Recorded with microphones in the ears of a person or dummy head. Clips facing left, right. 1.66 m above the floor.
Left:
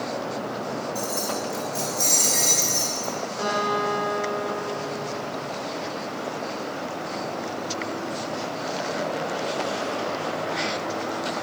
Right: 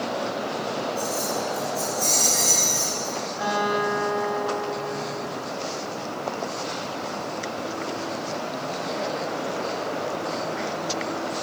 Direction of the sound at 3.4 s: 65° left (ahead or behind).